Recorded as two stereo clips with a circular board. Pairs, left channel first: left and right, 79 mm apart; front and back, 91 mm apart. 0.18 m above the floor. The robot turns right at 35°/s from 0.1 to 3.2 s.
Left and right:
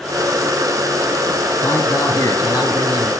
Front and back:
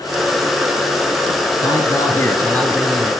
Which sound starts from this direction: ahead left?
A man speaking, at 1.6 s.